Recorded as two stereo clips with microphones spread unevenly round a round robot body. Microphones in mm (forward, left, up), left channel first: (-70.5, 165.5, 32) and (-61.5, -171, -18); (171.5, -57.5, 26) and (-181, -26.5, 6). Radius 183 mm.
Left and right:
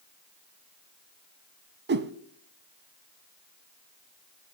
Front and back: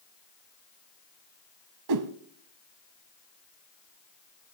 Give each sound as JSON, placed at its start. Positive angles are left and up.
{"t": 1.9, "sound": "a whoosh", "azimuth_deg": -150, "distance_m": 0.9}